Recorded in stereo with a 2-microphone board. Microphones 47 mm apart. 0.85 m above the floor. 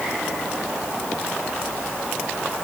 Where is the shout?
No shout in this recording.